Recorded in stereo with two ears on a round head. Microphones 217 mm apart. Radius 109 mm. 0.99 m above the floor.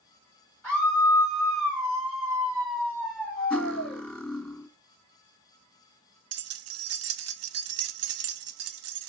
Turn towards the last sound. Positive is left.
turn(degrees=-60)  # may be behind; listen again after turning